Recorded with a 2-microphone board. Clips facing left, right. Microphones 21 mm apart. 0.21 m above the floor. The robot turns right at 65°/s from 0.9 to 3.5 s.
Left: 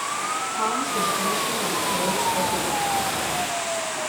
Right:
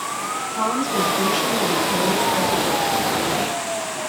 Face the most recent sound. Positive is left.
turn(degrees=60)